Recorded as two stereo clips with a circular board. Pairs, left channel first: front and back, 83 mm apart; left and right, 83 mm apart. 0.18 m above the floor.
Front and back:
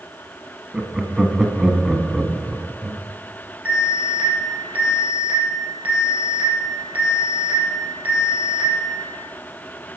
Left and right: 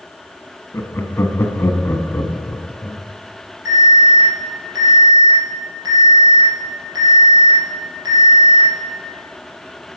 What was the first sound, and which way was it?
Laughter, 105° left.